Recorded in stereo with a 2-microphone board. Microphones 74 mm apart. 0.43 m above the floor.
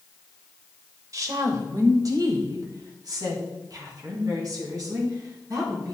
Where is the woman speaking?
50° right (ahead or behind), 1.3 m; by 6.0 s 55° right (ahead or behind), 4 m.